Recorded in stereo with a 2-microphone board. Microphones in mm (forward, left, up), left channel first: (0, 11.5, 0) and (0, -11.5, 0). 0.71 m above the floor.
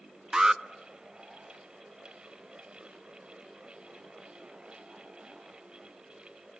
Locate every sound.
0.3 s an alarm: 30° right (ahead or behind), 0.5 m